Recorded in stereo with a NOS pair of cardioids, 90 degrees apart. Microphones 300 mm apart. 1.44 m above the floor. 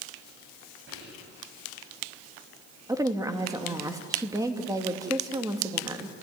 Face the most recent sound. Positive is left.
turn(degrees=-10)